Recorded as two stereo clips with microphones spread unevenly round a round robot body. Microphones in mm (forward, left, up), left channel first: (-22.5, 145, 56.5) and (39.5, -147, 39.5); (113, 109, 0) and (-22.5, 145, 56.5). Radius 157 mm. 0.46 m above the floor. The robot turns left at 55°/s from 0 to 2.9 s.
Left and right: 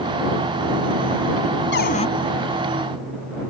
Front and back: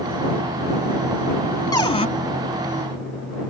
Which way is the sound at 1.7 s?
50° left.